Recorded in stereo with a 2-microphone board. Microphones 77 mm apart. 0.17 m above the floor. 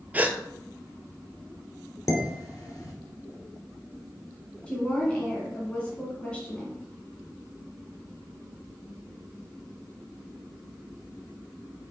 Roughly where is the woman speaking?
Centre.